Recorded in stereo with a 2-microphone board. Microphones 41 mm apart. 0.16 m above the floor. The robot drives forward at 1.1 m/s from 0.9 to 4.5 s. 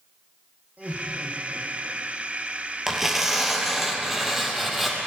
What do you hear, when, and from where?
0.8 s laughter: 40° right (ahead or behind), 8 m; by 2.0 s 50° right (ahead or behind), 7 m
2.9 s tearing paper: 10° right (ahead or behind), 3 m; by 5.0 s 5° right (ahead or behind), 4.5 m